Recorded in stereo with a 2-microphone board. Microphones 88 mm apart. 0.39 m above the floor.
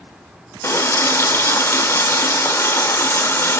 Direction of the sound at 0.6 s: 30° left (ahead or behind).